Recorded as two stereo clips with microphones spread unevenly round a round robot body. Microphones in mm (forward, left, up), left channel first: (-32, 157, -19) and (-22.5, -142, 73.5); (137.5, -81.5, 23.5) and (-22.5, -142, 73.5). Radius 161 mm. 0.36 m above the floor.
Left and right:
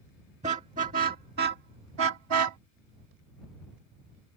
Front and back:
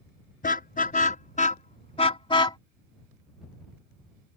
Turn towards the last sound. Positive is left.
turn(degrees=-45)